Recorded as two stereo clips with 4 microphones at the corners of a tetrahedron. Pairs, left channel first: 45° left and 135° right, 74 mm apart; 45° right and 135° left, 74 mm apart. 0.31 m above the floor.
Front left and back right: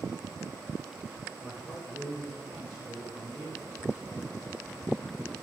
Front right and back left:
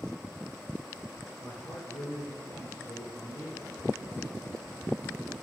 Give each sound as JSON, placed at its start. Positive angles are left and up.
{"t": 1.4, "sound": "a man speaking", "azimuth_deg": -70, "distance_m": 4.5}